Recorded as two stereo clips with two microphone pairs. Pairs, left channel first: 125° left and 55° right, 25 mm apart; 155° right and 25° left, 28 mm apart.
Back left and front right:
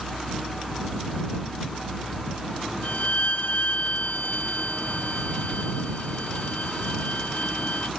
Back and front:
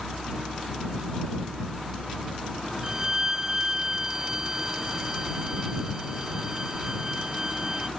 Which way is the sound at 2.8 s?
95° left.